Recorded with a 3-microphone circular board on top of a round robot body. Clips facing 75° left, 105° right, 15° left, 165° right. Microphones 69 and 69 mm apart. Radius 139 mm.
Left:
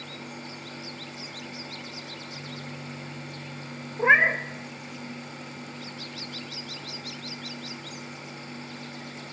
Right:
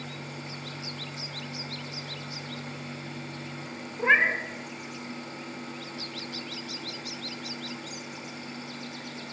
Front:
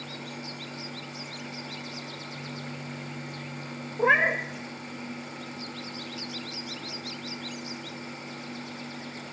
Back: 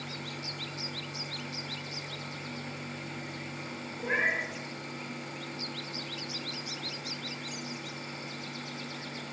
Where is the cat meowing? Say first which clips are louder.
Left 3 dB, front 8 dB; 5° left, 0.7 m.